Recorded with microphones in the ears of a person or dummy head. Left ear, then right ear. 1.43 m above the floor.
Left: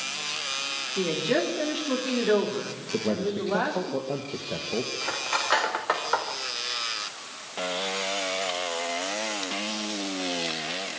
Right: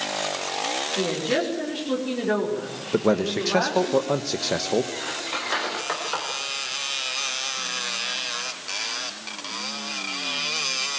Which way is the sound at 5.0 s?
35° left (ahead or behind).